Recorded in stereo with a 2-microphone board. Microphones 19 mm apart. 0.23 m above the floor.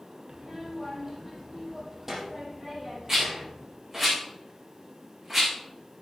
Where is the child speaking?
20° right (ahead or behind), 6 m.